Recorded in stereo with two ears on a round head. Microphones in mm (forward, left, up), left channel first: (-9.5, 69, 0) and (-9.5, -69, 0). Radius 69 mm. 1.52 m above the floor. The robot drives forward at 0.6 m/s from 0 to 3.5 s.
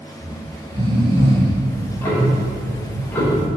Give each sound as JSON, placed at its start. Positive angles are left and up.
{"t": 0.2, "sound": "snoring", "side_deg": -30, "distance_m": 2.0}
{"t": 1.7, "sound": "ticking", "side_deg": 15, "distance_m": 2.5}